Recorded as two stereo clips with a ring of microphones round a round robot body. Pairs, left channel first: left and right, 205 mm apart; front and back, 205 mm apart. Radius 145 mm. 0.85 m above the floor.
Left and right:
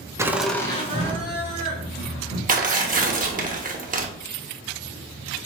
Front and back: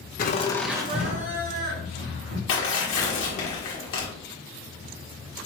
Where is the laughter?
20° right, 0.6 m; by 2.4 s 145° left, 1.8 m.